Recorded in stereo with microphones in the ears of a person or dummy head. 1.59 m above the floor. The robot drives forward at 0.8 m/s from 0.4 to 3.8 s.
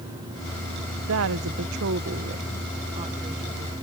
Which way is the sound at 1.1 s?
80° right.